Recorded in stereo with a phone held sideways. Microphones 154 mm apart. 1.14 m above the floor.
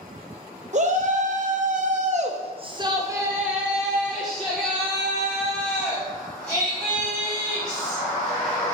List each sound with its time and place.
0.7 s a shout: 50° right (ahead or behind), 1.1 m; by 8.7 s 20° left (ahead or behind), 3.5 m